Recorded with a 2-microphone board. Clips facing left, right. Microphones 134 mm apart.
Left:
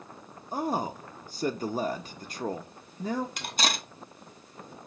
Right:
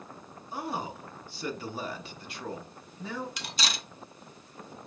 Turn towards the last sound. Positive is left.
turn(degrees=45)  # may be behind; listen again after turning